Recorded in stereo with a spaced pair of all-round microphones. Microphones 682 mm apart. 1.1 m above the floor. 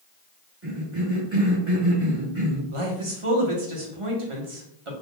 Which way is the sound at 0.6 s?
20° right (ahead or behind).